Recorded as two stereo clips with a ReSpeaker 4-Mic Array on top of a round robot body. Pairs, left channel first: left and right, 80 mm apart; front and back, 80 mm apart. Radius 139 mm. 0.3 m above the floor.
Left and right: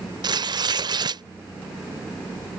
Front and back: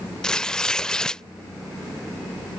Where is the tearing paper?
80° right.